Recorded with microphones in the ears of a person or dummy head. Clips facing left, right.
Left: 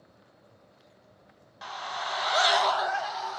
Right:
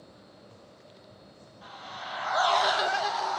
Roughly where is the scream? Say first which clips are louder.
Left 7 dB; left.